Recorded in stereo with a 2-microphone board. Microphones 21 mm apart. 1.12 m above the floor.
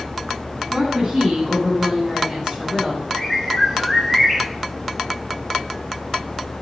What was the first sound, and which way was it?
A woman speaking, 30° right (ahead or behind).